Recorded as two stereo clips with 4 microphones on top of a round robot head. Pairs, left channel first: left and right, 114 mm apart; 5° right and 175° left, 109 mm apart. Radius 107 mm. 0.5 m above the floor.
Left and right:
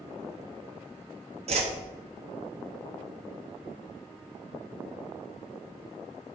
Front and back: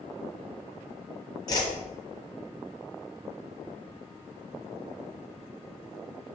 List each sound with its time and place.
1.5 s a whoosh: 60° right, 1.1 m